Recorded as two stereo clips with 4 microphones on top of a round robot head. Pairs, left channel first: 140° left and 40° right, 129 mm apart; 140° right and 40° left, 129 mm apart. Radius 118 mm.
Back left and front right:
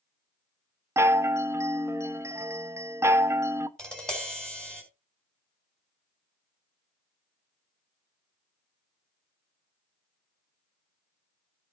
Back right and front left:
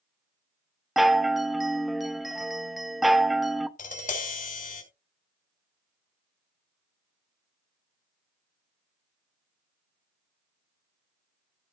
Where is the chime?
45° right, 1.0 m.